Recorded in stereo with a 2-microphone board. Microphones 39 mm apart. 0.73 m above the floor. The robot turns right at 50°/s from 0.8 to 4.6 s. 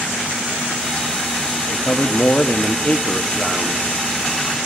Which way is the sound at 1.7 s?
75° left.